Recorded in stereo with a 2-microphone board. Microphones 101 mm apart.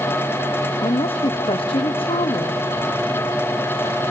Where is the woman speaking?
70° left (ahead or behind), 0.9 m.